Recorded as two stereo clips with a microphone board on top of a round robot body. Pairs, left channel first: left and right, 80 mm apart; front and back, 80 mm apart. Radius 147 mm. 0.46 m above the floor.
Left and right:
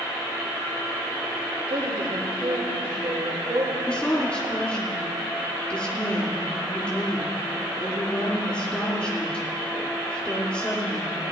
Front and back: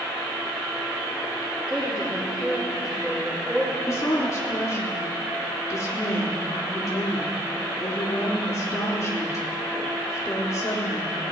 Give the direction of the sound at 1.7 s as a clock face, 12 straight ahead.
3 o'clock.